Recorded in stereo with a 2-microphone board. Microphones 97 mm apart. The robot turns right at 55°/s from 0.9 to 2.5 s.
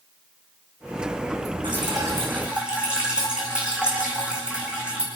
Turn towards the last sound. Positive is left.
turn(degrees=-10)